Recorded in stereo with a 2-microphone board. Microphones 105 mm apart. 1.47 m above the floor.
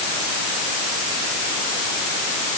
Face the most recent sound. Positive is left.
No sound to turn to.